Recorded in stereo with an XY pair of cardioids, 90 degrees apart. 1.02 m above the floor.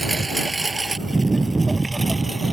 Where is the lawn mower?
20° right.